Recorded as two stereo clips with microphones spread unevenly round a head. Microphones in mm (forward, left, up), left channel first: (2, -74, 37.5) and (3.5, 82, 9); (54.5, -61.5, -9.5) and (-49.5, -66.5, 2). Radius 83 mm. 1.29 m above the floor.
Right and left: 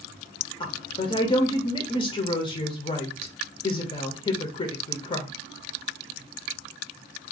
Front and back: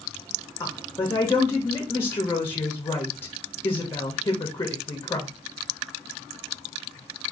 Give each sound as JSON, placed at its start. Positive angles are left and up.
{"t": 0.6, "sound": "a woman speaking", "azimuth_deg": -40, "distance_m": 0.5}